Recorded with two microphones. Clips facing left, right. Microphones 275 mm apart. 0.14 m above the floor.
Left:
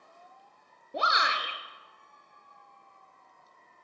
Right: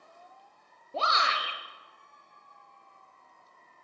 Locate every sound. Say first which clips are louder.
0.9 s a shout: even; 15° left (ahead or behind), 2 m